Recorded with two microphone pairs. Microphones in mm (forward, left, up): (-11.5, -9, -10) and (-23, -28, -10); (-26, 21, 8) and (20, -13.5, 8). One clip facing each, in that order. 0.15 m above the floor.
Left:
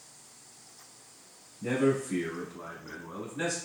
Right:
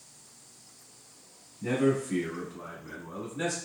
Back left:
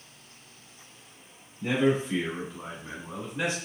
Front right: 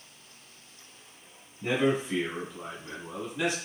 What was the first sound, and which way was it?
A man speaking, 70° right.